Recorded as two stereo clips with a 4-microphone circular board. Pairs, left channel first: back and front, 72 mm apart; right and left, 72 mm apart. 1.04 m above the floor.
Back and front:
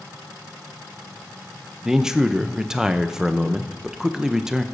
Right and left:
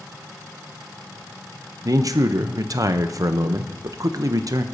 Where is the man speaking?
80° left, 0.6 m.